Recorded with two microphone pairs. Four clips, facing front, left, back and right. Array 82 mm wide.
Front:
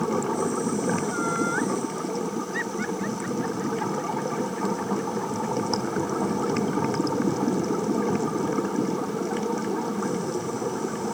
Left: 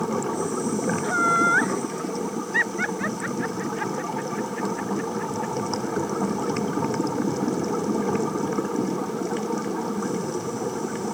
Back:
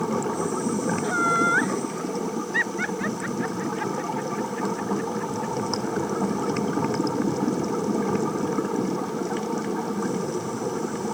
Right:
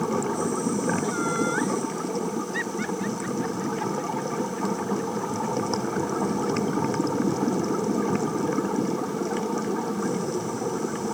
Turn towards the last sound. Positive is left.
turn(degrees=100)